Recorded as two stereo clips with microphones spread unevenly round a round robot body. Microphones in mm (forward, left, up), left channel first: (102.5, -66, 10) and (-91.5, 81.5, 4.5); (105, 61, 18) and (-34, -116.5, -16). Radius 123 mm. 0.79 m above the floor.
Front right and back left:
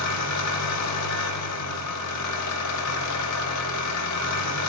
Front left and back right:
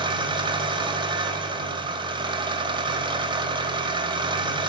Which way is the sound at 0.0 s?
55° right.